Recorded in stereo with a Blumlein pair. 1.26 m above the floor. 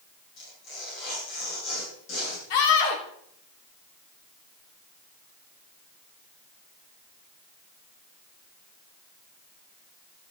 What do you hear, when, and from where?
0.4 s tearing paper: 40° left, 8 m
2.5 s a scream: 50° left, 3 m